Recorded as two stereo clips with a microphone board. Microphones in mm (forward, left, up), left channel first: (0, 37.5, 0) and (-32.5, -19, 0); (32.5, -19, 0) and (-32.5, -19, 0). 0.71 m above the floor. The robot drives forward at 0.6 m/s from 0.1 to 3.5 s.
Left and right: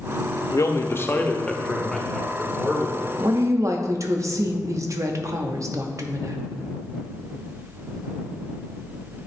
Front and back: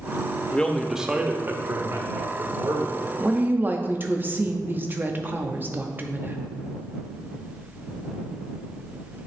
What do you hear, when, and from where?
0.5 s a man speaking: 65° left, 0.6 m; by 3.1 s 165° left, 1.5 m
3.2 s a woman speaking: 110° right, 0.6 m; by 6.4 s 130° right, 0.7 m